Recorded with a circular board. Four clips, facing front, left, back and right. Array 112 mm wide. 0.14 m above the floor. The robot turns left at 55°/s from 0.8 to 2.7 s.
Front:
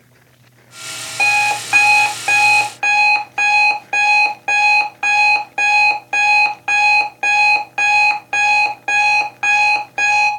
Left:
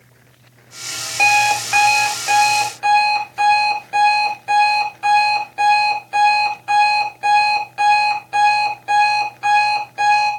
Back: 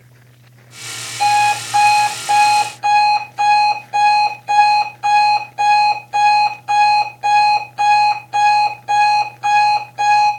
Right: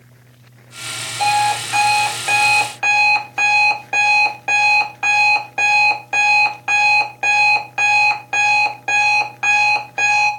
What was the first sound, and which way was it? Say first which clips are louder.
An alarm clock: even, back 5 dB; 45° left.